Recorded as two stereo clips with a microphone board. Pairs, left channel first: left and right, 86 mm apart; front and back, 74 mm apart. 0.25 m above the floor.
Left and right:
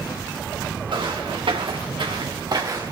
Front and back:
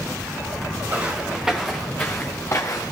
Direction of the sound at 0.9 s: 110° right.